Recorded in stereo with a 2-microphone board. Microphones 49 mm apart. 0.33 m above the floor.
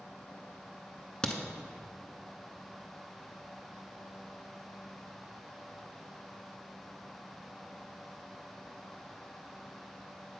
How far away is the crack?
About 0.5 m.